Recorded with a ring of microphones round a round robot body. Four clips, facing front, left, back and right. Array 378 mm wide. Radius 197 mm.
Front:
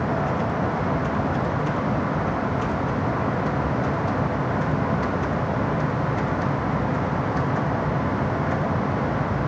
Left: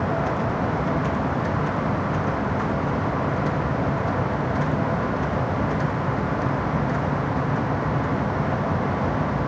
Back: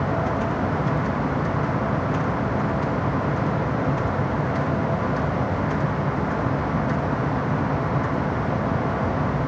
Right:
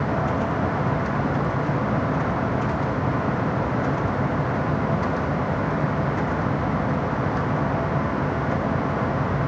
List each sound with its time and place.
Only background noise.